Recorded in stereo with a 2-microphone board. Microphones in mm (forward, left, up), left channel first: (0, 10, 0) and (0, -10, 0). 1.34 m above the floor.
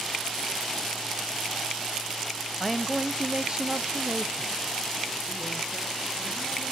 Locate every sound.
2.6 s a man speaking: 5° left (ahead or behind), 0.7 m; by 6.7 s 45° right (ahead or behind), 2 m